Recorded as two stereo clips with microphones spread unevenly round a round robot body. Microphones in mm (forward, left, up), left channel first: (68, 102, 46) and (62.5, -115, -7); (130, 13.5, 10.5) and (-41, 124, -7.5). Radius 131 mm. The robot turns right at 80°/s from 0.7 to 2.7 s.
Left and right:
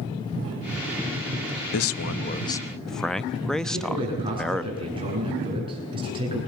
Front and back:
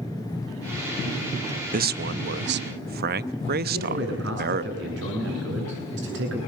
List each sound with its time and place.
1.7 s a man speaking: 105° left, 0.7 m; by 4.6 s 175° right, 0.7 m
3.6 s a man speaking: 165° right, 8.5 m